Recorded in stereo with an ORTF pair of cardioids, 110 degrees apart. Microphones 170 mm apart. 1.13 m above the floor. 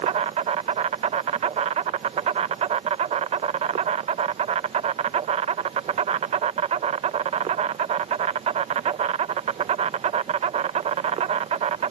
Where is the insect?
40° right.